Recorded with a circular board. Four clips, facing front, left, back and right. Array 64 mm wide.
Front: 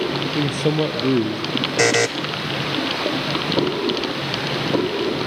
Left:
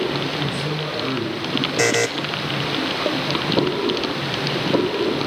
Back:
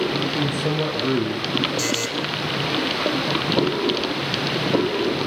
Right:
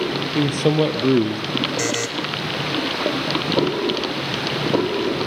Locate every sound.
0.3 s a man speaking: 65° right, 3 m
1.8 s a buzzer: 25° left, 1.4 m